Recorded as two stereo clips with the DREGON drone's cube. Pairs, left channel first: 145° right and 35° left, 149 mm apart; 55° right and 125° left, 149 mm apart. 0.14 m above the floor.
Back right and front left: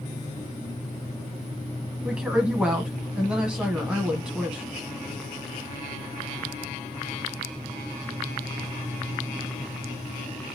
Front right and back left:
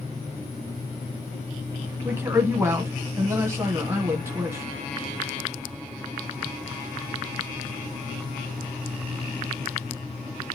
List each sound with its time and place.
2.0 s a woman speaking: 105° left, 1.2 m